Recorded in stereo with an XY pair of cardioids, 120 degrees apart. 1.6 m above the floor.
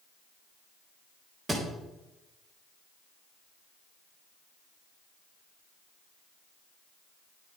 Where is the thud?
30° right, 3.5 m.